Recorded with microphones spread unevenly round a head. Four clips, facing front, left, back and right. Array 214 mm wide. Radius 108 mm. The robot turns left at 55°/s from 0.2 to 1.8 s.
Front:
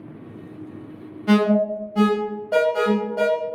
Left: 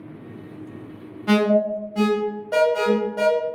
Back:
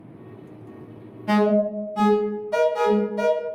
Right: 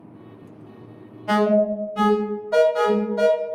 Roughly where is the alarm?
Ahead left.